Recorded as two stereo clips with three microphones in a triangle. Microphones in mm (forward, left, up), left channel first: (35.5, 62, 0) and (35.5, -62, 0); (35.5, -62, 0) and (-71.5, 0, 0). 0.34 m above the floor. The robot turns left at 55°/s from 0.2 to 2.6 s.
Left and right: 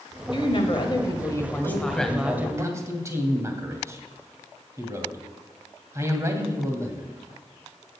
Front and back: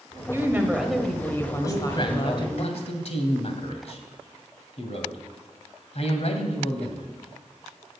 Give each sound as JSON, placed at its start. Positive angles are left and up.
{"t": 0.3, "sound": "a woman speaking", "azimuth_deg": 95, "distance_m": 1.6}
{"t": 1.6, "sound": "a man speaking", "azimuth_deg": 25, "distance_m": 1.9}